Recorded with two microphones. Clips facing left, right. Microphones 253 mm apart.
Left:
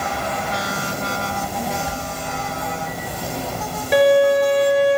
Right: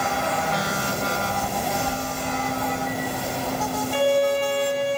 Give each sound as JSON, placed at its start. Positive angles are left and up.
{"t": 1.3, "sound": "a child speaking", "side_deg": 5, "distance_m": 5.5}
{"t": 3.9, "sound": "a violin", "side_deg": 85, "distance_m": 7.0}